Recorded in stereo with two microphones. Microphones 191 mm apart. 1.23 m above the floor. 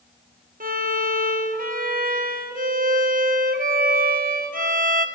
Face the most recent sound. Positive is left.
turn(degrees=-45)  # may be behind; listen again after turning